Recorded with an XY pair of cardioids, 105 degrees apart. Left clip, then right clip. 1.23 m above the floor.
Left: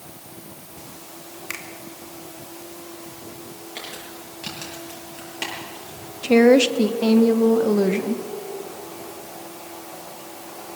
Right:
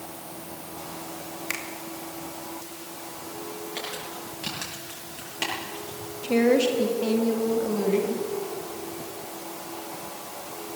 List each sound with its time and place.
1.5 s a finger snap: straight ahead, 2.5 m
3.8 s crumpling: 5° left, 8.5 m
6.2 s a woman speaking: 60° left, 1.6 m